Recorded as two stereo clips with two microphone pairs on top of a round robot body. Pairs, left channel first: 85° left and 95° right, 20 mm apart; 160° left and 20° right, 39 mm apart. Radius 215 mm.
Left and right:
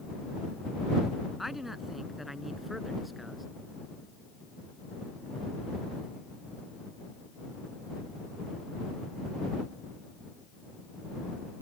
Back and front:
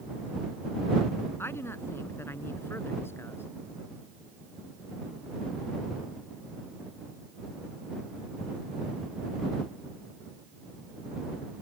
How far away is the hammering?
No hammering in this recording.